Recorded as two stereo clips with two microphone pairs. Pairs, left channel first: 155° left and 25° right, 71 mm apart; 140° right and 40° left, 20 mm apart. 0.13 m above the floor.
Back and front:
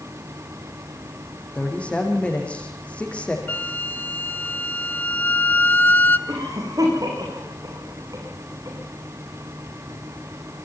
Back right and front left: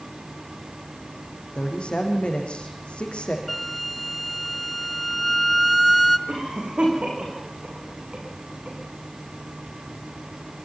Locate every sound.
1.6 s a woman speaking: 130° right, 5.5 m
3.5 s a flute: 130° left, 1.5 m
6.3 s a cough: 10° left, 10 m